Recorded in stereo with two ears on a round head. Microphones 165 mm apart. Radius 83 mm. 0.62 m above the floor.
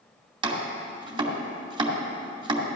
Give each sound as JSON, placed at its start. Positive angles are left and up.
{"t": 0.4, "sound": "chopping", "side_deg": -25, "distance_m": 1.7}